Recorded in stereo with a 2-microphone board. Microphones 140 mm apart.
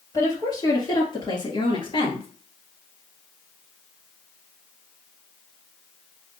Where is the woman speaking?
30° left (ahead or behind), 3 m; by 2.3 s 45° left (ahead or behind), 2.5 m.